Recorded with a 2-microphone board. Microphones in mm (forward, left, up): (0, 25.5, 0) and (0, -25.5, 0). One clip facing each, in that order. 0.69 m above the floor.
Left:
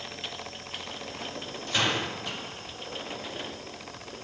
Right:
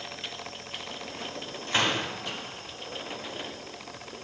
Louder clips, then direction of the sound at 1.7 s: Right 1 dB; 45° right (ahead or behind).